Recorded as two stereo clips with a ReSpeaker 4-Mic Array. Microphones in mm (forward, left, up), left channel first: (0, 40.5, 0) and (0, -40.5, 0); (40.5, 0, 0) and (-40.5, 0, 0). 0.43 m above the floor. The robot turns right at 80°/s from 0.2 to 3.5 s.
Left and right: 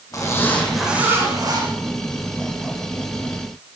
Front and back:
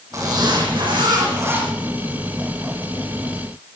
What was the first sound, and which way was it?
A zipper, 135° left.